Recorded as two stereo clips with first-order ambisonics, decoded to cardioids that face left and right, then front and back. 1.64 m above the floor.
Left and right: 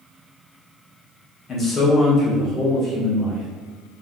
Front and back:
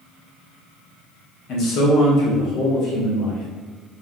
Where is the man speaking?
35° left, 0.7 m; by 3.5 s 20° right, 1.8 m.